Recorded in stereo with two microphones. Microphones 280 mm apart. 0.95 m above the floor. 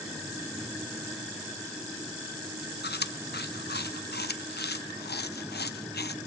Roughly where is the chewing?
Left.